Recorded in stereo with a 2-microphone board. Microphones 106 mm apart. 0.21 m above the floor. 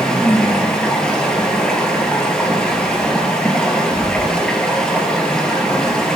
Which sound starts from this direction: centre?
Running water, at 0.0 s.